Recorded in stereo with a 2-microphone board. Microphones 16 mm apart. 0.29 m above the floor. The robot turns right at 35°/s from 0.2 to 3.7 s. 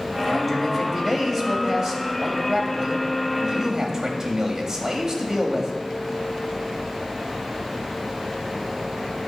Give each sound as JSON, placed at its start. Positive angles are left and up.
{"t": 0.1, "sound": "a man speaking", "azimuth_deg": -175, "distance_m": 1.3}